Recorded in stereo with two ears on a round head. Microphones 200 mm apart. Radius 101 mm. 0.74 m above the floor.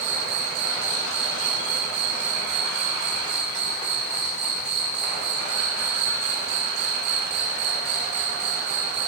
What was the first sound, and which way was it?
An insect, 80° right.